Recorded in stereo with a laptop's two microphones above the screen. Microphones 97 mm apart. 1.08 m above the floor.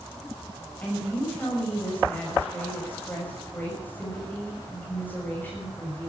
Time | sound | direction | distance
0.8 | a woman speaking | 20° left (ahead or behind) | 6 m